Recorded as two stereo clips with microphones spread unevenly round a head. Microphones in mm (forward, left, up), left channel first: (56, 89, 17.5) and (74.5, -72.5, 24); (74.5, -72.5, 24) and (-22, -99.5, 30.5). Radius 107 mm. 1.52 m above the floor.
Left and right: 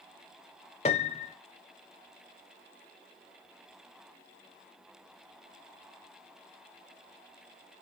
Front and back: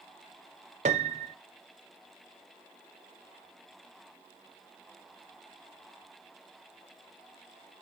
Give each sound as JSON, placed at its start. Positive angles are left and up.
{"t": 0.8, "sound": "a piano", "azimuth_deg": 160, "distance_m": 0.6}